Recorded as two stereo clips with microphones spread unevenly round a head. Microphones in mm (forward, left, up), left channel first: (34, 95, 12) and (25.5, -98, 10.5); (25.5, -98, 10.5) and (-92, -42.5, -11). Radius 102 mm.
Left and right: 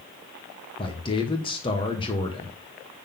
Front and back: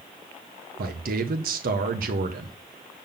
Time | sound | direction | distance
0.8 | a man speaking | 155° left | 1.1 m